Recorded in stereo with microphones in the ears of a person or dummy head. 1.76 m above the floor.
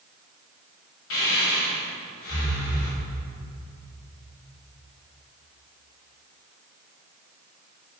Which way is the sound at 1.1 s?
70° left (ahead or behind).